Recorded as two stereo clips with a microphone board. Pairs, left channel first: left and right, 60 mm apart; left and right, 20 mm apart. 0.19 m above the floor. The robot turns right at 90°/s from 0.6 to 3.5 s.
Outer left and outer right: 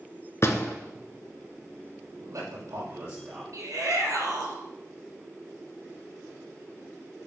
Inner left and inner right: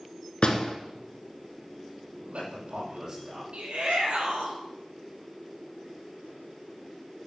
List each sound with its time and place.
0.4 s a door slam: 50° left (ahead or behind), 1.8 m; by 0.8 s 60° left (ahead or behind), 1.8 m
2.2 s a man speaking: 130° right, 6 m; by 3.4 s 20° right, 6 m
3.5 s a shout: 65° right (ahead or behind), 5.5 m